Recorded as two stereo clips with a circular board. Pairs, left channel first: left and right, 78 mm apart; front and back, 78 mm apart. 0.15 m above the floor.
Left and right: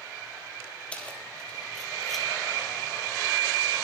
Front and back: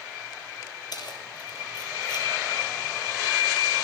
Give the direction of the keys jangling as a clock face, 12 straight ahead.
11 o'clock.